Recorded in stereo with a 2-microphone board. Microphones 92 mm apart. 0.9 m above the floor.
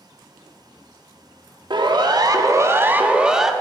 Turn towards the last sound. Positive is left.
turn(degrees=0)  # may be behind; listen again after turning